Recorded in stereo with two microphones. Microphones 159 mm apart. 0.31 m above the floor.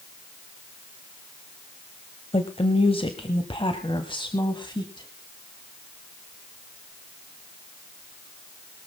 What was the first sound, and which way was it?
A woman speaking, 40° left (ahead or behind).